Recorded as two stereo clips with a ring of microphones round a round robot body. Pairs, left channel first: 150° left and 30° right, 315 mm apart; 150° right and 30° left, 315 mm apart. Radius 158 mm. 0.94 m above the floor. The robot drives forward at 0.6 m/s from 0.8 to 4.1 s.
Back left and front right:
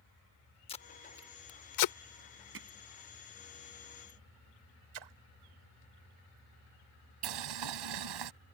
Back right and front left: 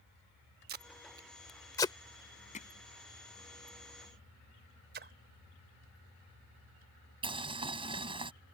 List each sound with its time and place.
0.7 s tape being pulled: 80° left; by 1.9 s 135° left
2.5 s hammering: 80° right; by 2.7 s 85° right
4.9 s a splash: 30° right
7.2 s boiling: 45° right